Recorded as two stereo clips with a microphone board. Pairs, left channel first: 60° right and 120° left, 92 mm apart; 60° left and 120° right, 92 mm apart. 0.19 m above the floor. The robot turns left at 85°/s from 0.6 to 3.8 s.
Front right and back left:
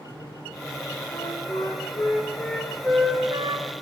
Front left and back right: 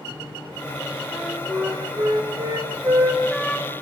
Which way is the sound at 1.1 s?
5° right.